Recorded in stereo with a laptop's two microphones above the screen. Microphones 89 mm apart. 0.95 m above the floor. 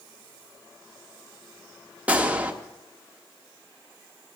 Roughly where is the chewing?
No chewing in this recording.